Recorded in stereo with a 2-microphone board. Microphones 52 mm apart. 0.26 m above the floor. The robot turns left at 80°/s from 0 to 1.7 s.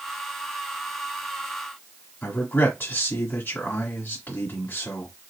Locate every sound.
2.2 s a man speaking: 50° left (ahead or behind), 1.5 m